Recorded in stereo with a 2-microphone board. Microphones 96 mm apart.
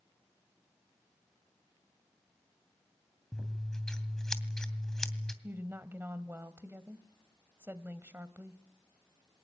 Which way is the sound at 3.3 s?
5° left (ahead or behind).